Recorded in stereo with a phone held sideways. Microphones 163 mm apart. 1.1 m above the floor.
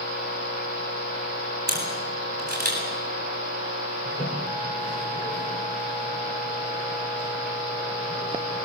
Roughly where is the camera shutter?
Right.